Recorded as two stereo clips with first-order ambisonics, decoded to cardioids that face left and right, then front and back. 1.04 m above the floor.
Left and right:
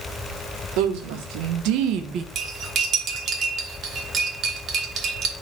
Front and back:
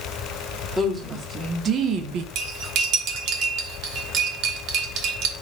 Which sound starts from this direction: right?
A woman speaking, at 0.8 s.